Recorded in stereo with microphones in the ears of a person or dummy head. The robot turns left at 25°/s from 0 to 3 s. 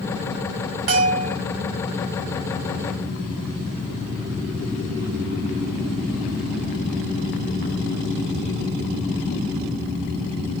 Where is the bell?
50° right (ahead or behind), 2 m; by 1.4 s 40° right (ahead or behind), 2 m.